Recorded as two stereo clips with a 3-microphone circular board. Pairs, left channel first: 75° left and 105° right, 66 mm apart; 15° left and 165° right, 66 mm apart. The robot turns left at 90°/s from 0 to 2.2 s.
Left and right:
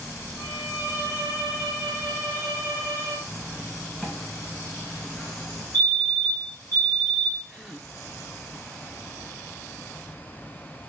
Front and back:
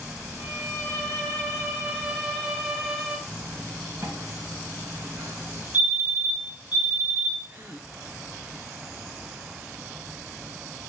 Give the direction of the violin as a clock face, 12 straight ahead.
3 o'clock.